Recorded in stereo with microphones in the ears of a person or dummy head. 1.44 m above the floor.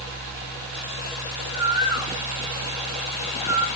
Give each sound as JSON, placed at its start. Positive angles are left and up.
{"t": 1.5, "sound": "a bird", "side_deg": -20, "distance_m": 1.7}